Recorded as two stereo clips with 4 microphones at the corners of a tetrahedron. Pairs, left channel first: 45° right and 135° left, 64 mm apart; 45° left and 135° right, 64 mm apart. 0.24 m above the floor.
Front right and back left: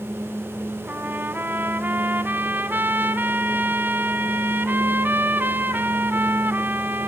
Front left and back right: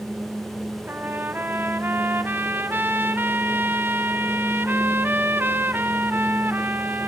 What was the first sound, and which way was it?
A trumpet, straight behind.